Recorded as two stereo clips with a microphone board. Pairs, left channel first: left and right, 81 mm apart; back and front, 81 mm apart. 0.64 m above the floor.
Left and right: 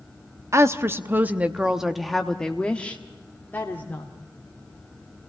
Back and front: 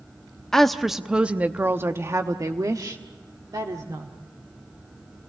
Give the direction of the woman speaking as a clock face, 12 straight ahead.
3 o'clock.